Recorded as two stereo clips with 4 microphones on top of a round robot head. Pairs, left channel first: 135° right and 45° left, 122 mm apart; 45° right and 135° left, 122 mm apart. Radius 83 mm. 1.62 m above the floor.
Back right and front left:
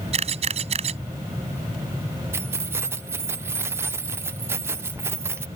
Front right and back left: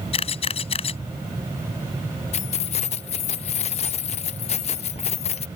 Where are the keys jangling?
20° right.